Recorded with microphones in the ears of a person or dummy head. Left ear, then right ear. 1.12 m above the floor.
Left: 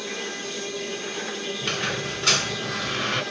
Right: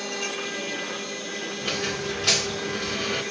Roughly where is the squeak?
Left.